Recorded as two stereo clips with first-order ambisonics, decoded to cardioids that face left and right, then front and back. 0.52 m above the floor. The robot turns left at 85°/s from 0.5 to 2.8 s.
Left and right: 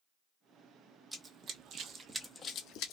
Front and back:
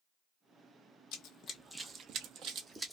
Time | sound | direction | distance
1.1 | running footsteps | straight ahead | 0.7 m